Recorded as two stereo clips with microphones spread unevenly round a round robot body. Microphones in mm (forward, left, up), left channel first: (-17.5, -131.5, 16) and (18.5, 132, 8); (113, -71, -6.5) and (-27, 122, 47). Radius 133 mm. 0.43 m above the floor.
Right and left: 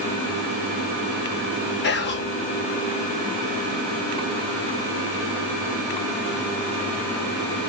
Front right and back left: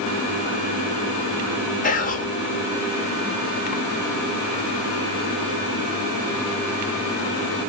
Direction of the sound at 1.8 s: 65° right.